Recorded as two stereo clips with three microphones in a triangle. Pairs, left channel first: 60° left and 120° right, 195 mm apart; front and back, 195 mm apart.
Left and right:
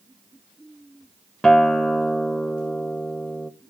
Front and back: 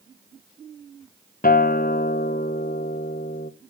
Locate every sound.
1.4 s a guitar: 25° right, 0.6 m